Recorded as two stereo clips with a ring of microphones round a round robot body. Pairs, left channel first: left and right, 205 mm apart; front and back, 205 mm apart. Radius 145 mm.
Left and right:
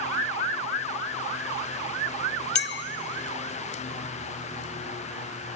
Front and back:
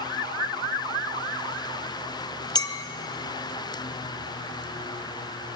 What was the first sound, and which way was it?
A clink, 70° left.